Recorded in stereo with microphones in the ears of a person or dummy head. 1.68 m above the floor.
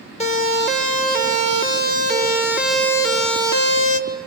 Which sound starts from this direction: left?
A siren, at 0.2 s.